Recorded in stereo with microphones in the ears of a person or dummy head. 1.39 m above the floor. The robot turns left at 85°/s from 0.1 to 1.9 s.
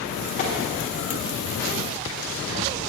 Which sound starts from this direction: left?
Tapping, at 0.4 s.